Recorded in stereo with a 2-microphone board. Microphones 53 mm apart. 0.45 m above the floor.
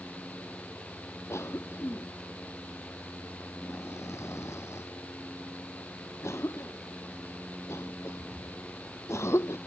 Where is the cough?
60° left (ahead or behind).